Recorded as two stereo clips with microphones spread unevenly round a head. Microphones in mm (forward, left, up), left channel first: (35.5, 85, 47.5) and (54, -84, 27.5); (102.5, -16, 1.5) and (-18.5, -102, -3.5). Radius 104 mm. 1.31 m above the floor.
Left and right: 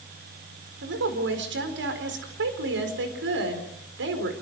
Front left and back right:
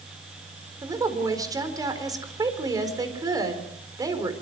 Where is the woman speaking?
80° right, 4.5 m.